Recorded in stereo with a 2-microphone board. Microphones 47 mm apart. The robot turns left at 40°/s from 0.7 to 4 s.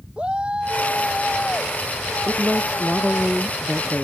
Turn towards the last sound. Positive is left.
turn(degrees=155)